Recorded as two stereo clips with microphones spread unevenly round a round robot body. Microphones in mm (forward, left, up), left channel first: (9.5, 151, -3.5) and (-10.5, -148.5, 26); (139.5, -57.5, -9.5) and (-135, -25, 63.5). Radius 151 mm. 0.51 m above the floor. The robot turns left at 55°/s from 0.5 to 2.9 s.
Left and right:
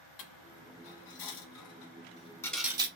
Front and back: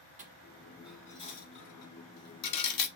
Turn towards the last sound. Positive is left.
turn(degrees=-25)